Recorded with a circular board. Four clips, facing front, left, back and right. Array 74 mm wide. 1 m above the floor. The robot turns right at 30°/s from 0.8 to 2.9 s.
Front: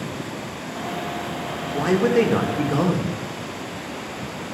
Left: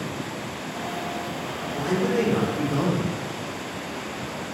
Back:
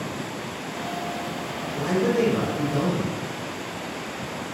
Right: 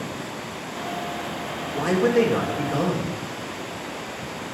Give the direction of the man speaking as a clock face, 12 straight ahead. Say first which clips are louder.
Right 4 dB, front 4 dB; 1 o'clock.